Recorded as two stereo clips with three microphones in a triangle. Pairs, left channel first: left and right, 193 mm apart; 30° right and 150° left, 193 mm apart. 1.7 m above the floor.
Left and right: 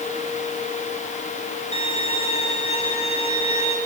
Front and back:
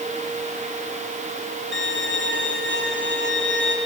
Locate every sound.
1.7 s a violin: 145° left, 3.5 m